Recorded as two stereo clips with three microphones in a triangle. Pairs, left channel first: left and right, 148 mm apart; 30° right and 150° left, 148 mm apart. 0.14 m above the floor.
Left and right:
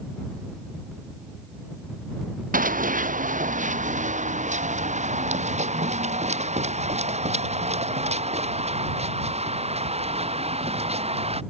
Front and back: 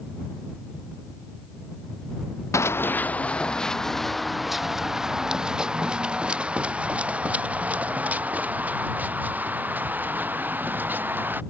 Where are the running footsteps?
100° right; by 11.4 s 135° right.